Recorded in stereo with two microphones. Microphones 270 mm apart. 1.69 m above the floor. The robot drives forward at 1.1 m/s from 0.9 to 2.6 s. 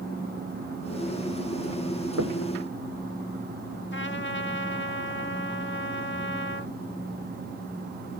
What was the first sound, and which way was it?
Knocking, 75° right (ahead or behind).